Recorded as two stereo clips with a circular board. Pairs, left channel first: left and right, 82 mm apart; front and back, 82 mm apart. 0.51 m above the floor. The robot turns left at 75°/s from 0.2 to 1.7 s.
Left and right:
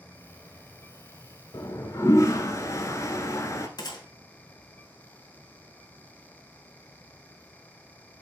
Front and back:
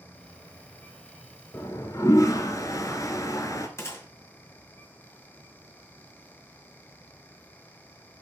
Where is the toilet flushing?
55° left, 1.0 m; by 3.7 s 40° left, 1.0 m.